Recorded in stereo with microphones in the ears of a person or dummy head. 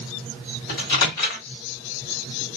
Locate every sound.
0.7 s a microwave: 70° left (ahead or behind), 1.8 m